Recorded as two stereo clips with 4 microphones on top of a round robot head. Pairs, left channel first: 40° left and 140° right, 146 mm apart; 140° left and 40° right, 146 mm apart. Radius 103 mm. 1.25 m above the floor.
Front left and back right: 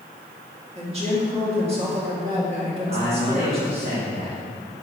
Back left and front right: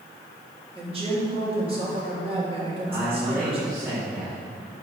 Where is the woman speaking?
95° right, 3 m.